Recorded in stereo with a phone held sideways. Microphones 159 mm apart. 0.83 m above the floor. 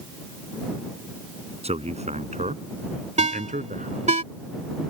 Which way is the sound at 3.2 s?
45° right (ahead or behind).